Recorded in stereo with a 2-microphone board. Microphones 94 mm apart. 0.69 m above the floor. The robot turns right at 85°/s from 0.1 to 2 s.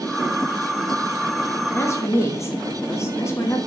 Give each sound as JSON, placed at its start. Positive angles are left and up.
{"t": 1.7, "sound": "a woman speaking", "side_deg": 25, "distance_m": 0.8}